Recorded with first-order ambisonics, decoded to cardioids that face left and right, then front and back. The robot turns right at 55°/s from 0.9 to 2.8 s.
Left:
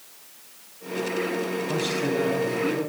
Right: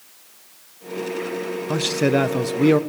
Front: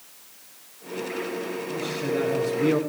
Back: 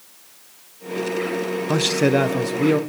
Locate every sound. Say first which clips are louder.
1.7 s a man speaking: right 8 dB, back 11 dB; 160° right, 1.3 m; by 2.8 s 95° right, 1.3 m